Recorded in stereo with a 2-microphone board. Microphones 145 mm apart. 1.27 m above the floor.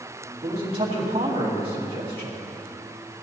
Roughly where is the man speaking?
Right.